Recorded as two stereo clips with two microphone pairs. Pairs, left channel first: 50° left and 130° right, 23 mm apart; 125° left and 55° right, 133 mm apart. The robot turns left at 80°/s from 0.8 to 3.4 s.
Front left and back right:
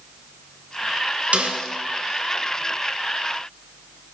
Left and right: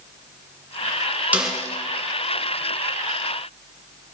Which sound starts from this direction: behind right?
A snare drum, at 1.3 s.